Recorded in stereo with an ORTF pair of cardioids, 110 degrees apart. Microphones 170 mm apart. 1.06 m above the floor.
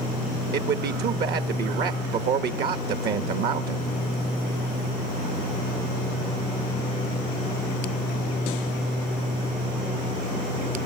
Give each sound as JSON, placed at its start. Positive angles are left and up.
{"t": 0.5, "sound": "a man speaking", "azimuth_deg": -65, "distance_m": 1.4}